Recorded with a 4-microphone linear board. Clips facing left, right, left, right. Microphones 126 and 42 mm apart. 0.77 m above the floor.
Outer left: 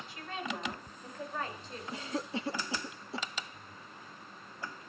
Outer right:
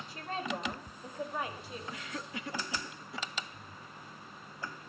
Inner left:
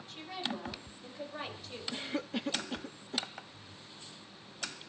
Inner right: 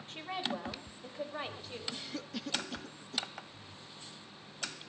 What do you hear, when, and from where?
0.1 s a woman speaking: 45° right (ahead or behind), 4 m; by 1.8 s 5° right (ahead or behind), 4.5 m
1.9 s a cough: 30° left (ahead or behind), 0.6 m